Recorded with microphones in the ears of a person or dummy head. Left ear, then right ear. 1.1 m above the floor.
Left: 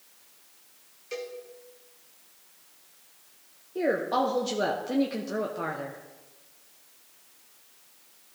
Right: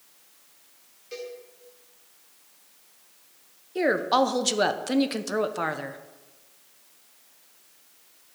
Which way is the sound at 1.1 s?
20° left (ahead or behind).